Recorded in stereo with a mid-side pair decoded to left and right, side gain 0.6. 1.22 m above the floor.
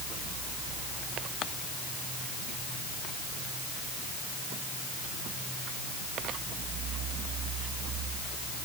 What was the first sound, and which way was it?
Only background noise.